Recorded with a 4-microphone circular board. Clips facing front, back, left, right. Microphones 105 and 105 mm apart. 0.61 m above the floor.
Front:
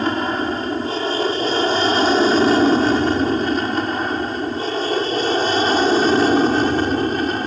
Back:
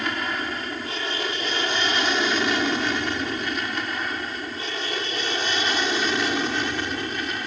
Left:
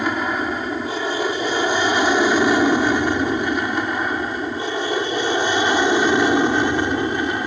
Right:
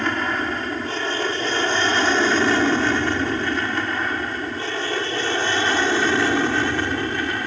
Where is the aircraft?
20° left; by 7.5 s 25° left.